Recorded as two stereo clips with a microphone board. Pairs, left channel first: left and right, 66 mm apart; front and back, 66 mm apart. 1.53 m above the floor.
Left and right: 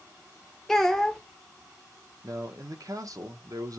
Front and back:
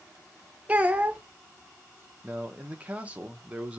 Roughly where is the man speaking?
Right.